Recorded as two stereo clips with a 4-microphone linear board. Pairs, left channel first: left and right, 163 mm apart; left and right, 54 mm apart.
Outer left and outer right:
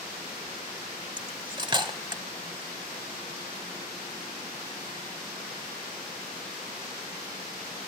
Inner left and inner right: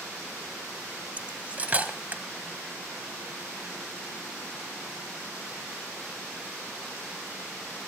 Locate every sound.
1.2 s cutlery clinking: 30° right (ahead or behind), 0.8 m